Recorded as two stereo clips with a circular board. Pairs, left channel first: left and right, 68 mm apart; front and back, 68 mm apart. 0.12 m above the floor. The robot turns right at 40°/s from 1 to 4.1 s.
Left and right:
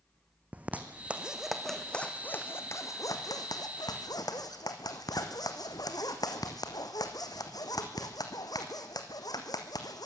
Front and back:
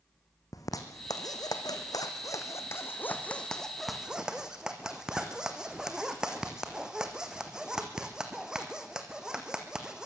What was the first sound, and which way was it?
A zipper, 25° right.